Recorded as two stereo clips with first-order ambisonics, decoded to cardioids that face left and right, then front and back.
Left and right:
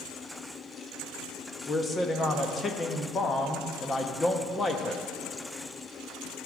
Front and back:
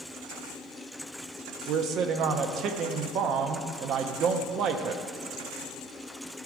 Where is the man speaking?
160° left, 0.6 m.